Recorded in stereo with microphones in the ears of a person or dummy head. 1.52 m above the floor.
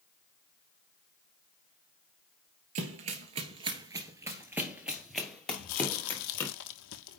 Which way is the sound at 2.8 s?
40° right (ahead or behind).